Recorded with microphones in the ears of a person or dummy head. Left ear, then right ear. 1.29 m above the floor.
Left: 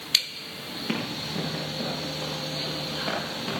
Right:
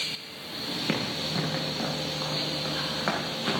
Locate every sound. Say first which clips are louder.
0.9 s running footsteps: even; 20° right (ahead or behind), 4.5 m; by 3.6 s 50° right (ahead or behind), 6.5 m